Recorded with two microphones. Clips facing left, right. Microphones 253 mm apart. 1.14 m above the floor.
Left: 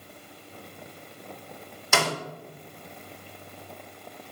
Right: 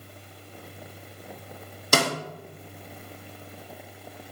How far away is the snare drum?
About 0.7 m.